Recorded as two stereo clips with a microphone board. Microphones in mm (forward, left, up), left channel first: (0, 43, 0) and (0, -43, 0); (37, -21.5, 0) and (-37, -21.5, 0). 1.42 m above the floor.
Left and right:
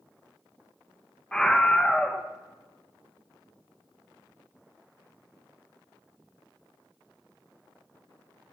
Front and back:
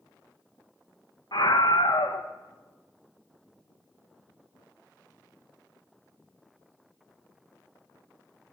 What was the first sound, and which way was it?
A scream, 10° left.